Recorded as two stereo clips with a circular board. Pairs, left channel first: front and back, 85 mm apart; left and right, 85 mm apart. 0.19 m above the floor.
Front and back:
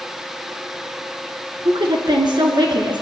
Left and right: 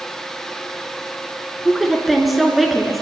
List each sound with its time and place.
1.6 s a woman speaking: straight behind, 2.0 m